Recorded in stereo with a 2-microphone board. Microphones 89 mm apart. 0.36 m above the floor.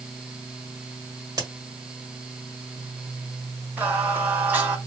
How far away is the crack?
About 1.5 m.